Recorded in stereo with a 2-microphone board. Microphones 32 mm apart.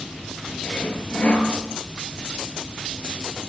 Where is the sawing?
40° left (ahead or behind), 5.5 m.